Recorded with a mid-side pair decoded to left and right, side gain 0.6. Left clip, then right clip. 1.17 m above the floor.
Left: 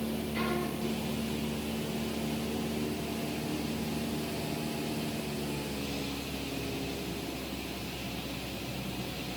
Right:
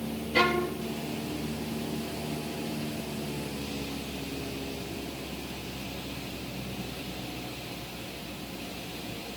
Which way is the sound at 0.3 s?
60° right.